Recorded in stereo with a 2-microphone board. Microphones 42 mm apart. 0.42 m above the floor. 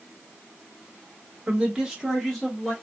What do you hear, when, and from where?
1.5 s a man speaking: 25° right (ahead or behind), 1.0 m; by 2.7 s 15° left (ahead or behind), 1.1 m